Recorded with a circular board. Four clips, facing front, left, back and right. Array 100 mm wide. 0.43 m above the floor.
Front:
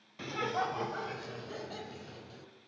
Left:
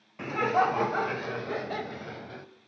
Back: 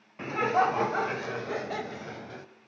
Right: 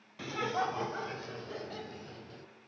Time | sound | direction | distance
0.2 | laughter | 135° left | 0.8 m